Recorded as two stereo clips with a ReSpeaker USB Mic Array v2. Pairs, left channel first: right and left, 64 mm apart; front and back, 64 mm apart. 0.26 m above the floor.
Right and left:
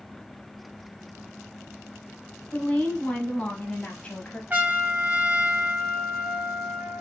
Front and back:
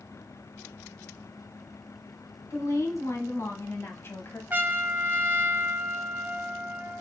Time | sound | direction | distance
2.5 | a woman speaking | 20° right | 1.9 m
4.5 | a trumpet | 135° left | 0.8 m